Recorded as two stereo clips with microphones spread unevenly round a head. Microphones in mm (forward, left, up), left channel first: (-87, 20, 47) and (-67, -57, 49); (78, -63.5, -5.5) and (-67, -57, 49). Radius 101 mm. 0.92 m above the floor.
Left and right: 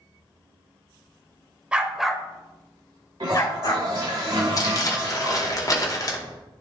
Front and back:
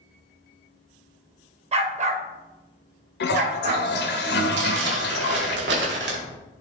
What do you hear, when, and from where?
1.7 s a dog barking: 150° right, 1.3 m; by 3.9 s 135° left, 1.6 m
3.2 s a toilet flushing: 10° right, 1.2 m
4.6 s crumpling: 150° left, 1.8 m